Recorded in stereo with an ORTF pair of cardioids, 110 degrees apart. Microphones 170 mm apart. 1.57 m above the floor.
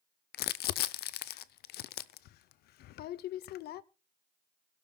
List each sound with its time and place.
0.3 s crumpling: 70° left, 0.6 m